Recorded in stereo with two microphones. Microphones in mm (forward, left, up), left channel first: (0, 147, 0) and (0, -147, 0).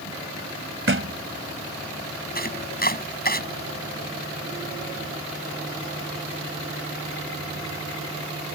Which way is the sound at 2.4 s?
35° left (ahead or behind).